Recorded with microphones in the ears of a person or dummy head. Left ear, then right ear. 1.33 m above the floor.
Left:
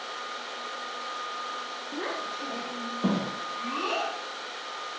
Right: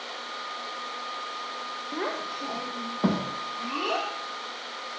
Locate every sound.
1.9 s a child speaking: 40° right (ahead or behind), 0.8 m; by 4.1 s 55° right (ahead or behind), 1.3 m